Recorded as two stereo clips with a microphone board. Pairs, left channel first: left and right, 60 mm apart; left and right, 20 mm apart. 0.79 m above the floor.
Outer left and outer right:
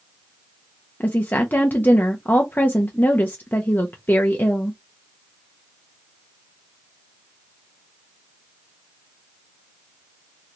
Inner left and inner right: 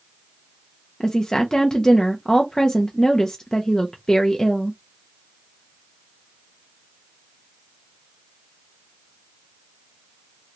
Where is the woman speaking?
30° left (ahead or behind), 0.6 m.